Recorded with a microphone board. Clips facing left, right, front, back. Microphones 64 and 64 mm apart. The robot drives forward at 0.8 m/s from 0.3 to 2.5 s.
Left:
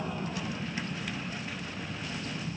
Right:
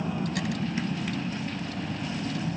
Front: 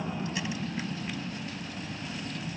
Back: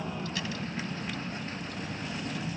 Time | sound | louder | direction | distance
0.0 | a vehicle | right 5 dB, front 2 dB | 70° right | ?